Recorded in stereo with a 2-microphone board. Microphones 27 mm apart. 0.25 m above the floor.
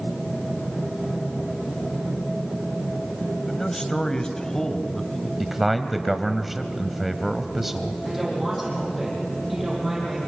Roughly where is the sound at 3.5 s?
Centre.